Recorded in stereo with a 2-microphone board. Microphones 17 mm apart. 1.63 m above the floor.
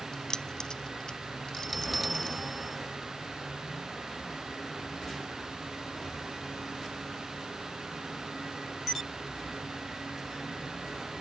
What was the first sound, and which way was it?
Keys jangling, 45° left (ahead or behind).